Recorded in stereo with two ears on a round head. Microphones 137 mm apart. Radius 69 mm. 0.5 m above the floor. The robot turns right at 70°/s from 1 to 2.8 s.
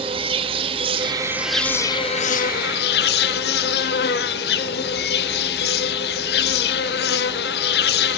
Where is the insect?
35° right, 0.7 m; by 8.2 s 90° left, 0.7 m.